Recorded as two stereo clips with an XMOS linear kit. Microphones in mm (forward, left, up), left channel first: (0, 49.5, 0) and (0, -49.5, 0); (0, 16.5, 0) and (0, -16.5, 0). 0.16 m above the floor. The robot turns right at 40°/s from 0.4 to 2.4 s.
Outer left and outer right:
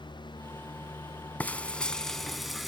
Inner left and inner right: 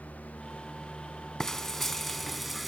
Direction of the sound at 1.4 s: 15° left (ahead or behind).